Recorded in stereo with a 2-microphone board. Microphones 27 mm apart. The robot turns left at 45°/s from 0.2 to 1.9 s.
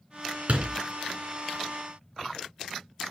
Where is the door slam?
55° right (ahead or behind), 3 m; by 0.8 s 40° right (ahead or behind), 3 m.